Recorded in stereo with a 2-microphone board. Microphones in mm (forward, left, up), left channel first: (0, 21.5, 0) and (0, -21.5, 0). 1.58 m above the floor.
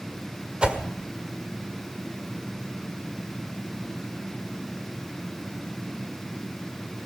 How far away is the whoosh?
About 1.5 m.